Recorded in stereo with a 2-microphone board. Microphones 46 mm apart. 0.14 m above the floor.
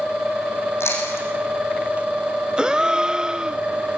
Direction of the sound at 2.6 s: 20° right (ahead or behind).